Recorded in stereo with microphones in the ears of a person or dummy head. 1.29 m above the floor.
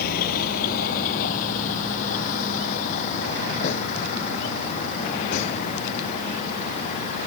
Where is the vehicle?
50° left (ahead or behind); by 7.3 s 40° left (ahead or behind).